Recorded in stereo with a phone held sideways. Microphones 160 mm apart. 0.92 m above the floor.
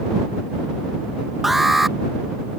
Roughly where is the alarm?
Centre.